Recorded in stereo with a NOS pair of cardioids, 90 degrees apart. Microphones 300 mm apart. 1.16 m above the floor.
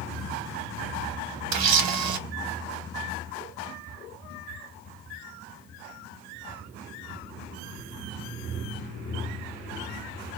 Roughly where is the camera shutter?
Ahead right.